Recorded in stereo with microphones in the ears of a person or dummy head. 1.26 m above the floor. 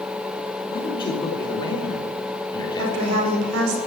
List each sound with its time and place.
0.7 s a man speaking: 25° left (ahead or behind), 3 m
2.8 s a woman speaking: 80° right, 4.5 m